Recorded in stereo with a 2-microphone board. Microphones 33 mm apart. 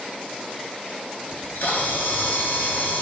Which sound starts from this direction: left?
A camera shutter, at 1.3 s.